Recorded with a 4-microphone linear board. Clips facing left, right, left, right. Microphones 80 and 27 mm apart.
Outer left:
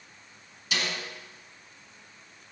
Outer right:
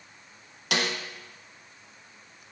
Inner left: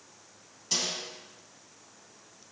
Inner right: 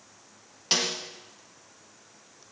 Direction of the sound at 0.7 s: 65° right (ahead or behind).